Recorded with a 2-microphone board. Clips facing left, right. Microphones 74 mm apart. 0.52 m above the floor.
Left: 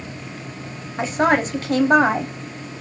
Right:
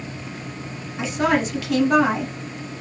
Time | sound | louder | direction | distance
1.0 | a woman speaking | left 2 dB | 40° left (ahead or behind) | 0.8 m